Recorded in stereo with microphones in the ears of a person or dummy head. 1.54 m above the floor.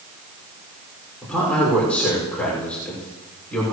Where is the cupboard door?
I don't hear a cupboard door.